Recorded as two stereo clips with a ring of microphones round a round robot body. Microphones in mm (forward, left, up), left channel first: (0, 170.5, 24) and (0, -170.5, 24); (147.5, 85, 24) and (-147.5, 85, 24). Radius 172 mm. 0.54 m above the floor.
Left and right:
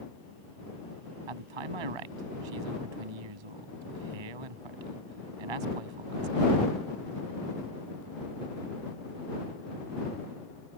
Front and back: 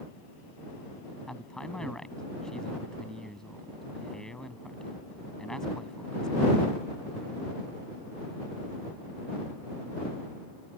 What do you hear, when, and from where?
1.3 s a man speaking: 90° right